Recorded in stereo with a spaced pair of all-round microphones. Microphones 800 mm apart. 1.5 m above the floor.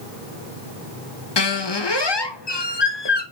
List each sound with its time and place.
1.4 s a squeak: 35° left (ahead or behind), 0.8 m